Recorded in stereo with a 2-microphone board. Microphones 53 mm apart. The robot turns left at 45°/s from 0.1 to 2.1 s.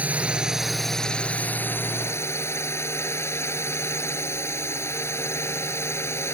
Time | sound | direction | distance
0.0 | a drone | 150° right | ?